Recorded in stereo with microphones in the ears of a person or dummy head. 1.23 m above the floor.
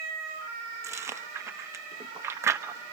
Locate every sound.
0.8 s chewing: 10° right (ahead or behind), 0.9 m